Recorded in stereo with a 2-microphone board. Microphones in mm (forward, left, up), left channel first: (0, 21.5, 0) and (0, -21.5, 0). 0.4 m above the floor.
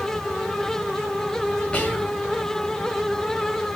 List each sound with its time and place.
1.7 s whispering: 25° left (ahead or behind), 1.6 m